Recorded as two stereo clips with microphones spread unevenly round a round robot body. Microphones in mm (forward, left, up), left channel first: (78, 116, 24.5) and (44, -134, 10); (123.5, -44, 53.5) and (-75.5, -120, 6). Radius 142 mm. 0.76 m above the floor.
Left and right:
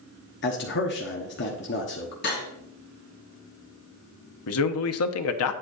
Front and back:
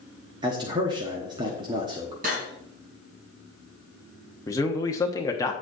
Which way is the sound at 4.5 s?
105° left.